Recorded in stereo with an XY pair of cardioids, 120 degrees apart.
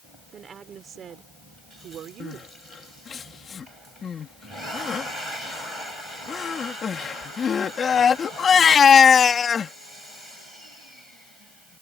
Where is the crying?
40° left.